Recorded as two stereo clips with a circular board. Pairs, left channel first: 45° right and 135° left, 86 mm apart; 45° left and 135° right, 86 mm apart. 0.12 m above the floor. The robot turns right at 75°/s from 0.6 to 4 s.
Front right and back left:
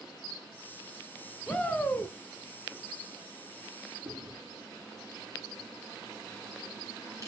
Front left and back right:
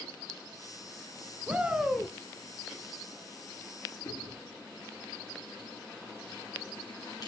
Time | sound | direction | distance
1.5 | a shout | 95° right | 1.2 m
4.0 | chewing | 85° left | 9.5 m